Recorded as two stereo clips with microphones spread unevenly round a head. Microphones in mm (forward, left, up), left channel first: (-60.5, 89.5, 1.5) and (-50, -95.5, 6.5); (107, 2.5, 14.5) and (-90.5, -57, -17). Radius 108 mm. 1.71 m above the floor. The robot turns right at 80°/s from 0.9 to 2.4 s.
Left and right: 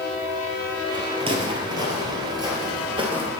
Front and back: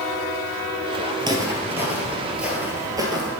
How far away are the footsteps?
About 1.9 m.